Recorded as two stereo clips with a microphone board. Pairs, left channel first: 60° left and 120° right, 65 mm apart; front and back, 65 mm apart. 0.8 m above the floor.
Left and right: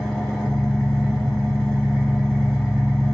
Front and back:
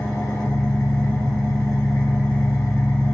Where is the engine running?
25° right, 0.9 m.